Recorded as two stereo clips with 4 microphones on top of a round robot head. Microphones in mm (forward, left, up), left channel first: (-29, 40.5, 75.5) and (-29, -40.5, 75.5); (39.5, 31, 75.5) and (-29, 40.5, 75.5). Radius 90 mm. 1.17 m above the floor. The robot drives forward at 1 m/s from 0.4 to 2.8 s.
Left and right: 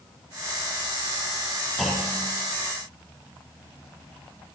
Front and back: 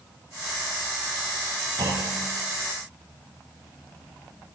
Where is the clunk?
Straight behind, 7.5 m.